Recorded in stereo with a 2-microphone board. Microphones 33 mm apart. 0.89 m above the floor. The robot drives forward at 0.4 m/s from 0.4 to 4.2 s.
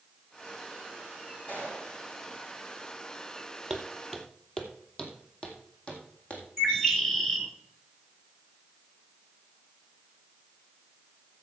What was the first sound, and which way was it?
A gunshot, 45° left (ahead or behind).